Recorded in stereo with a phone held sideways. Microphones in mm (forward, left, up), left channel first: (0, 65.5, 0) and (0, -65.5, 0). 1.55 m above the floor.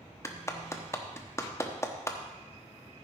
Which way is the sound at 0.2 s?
20° left (ahead or behind).